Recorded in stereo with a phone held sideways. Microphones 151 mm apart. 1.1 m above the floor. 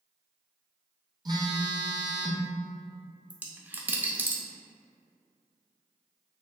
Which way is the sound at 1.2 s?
25° right (ahead or behind).